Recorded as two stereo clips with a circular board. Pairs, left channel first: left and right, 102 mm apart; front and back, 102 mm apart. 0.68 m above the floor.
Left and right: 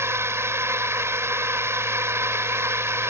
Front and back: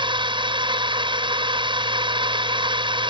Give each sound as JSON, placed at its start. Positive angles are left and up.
{"t": 0.0, "sound": "a drone", "azimuth_deg": -150}